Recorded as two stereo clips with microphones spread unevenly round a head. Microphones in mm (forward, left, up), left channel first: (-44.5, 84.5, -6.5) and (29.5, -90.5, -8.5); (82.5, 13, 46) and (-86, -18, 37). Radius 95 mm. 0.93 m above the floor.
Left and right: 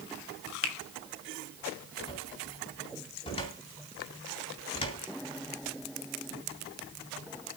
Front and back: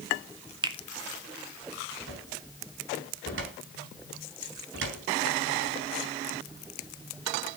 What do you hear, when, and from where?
0.6 s a finger snap: 130° left, 1.6 m
2.1 s a cupboard door: 175° left, 4 m